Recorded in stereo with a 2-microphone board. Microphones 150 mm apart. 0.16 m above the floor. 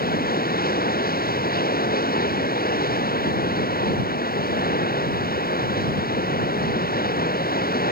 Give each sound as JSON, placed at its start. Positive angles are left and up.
{"t": 0.0, "sound": "running water", "side_deg": 85}